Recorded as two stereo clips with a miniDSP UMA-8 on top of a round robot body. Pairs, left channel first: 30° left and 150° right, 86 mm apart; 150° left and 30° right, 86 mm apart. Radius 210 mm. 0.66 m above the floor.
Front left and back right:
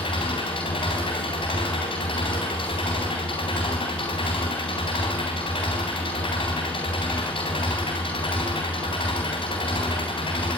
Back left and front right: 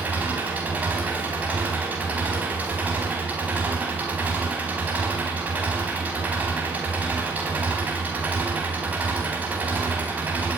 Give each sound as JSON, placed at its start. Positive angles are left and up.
{"t": 0.0, "sound": "an engine running", "azimuth_deg": 40, "distance_m": 3.5}